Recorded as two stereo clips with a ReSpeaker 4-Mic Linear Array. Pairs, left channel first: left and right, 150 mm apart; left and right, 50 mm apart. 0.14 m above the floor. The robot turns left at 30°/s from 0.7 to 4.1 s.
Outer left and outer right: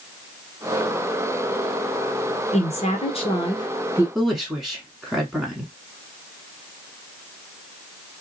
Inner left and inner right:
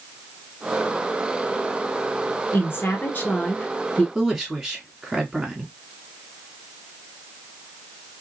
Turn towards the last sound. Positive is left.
turn(degrees=0)  # may be behind; listen again after turning